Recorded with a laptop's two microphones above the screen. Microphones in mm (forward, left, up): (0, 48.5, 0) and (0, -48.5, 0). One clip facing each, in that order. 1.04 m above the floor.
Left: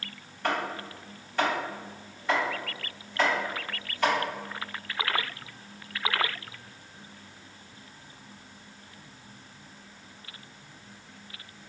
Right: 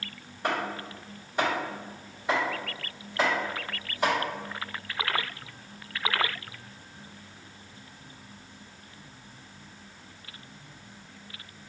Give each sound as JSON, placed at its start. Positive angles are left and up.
{"t": 0.4, "sound": "chopping", "side_deg": -15, "distance_m": 1.9}